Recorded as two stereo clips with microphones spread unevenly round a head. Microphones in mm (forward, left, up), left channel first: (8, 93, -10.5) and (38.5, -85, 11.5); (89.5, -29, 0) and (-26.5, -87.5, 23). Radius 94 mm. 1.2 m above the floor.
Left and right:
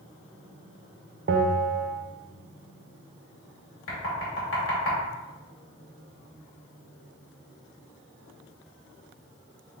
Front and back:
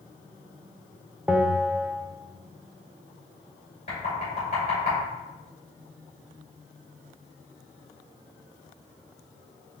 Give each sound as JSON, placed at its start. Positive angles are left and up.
{"t": 1.3, "sound": "a bell", "azimuth_deg": -65, "distance_m": 0.5}
{"t": 3.9, "sound": "knocking", "azimuth_deg": 90, "distance_m": 2.5}